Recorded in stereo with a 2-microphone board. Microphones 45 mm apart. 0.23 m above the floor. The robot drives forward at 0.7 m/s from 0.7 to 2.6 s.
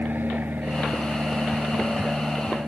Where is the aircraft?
45° right (ahead or behind).